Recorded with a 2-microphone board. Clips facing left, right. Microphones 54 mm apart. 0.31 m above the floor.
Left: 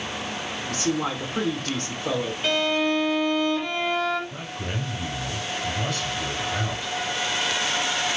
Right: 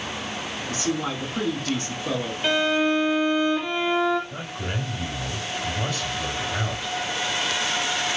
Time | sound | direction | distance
0.7 | a man speaking | 50° left (ahead or behind) | 2.5 m
2.4 | a violin | 10° right (ahead or behind) | 0.9 m
4.3 | a man speaking | 15° right (ahead or behind) | 1.7 m